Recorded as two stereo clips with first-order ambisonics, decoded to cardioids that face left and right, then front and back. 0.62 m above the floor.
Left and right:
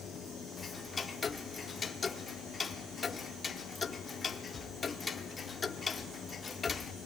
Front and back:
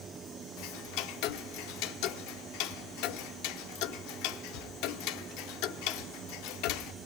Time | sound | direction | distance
0.6 | ticking | 20° left | 0.6 m